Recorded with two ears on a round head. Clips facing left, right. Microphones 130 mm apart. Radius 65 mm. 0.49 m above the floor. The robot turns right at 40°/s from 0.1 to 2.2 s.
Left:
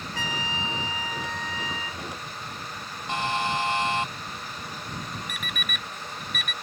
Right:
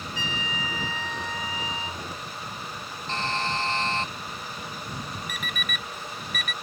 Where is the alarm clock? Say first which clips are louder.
Right 1 dB; 35° right (ahead or behind).